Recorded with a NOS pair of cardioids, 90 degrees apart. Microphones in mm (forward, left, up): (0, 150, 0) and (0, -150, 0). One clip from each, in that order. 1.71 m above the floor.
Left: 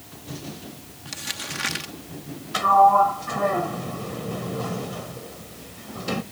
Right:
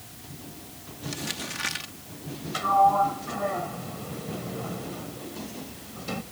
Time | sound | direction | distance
1.1 | crumpling | 25° left | ?
2.5 | a sliding door | 40° left | ?